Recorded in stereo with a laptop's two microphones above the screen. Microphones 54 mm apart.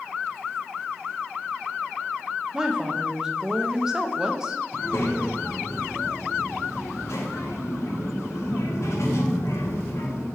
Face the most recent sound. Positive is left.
turn(degrees=65)  # may be behind; listen again after turning